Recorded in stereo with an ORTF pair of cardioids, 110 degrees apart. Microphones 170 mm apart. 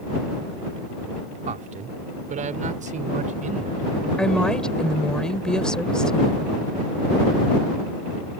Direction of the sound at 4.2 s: 5° left.